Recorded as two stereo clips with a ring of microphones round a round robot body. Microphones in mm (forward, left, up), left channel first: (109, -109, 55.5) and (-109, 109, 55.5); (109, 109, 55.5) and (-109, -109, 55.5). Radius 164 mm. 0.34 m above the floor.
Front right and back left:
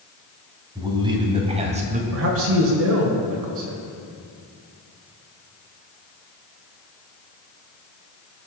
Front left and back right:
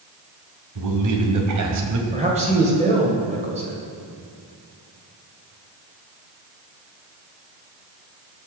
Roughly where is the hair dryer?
I don't hear a hair dryer.